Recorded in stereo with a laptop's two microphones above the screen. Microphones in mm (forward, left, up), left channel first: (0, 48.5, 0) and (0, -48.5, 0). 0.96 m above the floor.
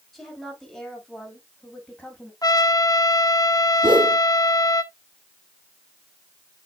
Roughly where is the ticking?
I don't hear ticking.